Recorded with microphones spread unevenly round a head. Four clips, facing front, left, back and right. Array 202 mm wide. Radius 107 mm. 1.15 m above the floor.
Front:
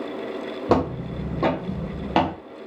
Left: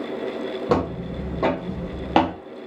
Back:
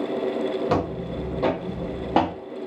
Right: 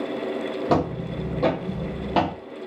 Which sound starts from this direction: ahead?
Footsteps, at 0.7 s.